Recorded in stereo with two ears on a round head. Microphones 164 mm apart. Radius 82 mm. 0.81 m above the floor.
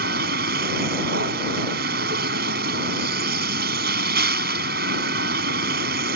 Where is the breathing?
No breathing in this recording.